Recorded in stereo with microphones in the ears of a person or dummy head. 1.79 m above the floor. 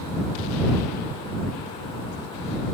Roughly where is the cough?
I don't hear a cough.